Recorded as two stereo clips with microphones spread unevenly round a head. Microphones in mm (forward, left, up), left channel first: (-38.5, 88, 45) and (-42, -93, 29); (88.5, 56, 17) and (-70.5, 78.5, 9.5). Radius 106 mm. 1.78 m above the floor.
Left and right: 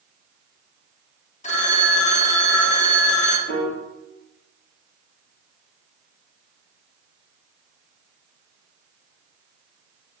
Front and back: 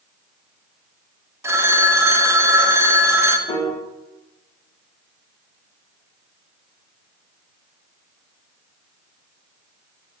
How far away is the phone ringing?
About 0.9 m.